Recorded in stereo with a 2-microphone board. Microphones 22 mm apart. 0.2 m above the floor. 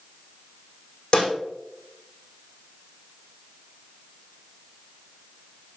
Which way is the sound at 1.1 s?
45° left (ahead or behind).